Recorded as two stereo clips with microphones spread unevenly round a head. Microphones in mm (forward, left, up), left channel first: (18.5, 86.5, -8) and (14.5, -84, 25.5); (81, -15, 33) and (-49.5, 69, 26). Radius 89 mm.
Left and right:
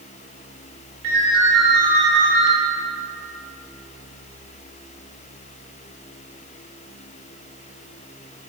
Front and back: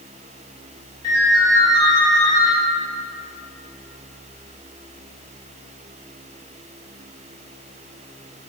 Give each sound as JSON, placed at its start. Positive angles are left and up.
{"t": 1.0, "sound": "a ringtone", "azimuth_deg": -100, "distance_m": 2.5}